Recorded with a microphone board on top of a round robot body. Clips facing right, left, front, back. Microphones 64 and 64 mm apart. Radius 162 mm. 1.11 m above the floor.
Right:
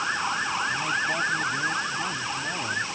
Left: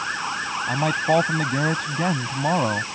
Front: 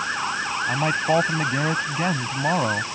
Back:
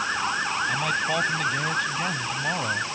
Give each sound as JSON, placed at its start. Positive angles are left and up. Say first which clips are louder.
{"t": 0.7, "sound": "a man speaking", "louder": "left 6 dB, front 4 dB", "azimuth_deg": 65}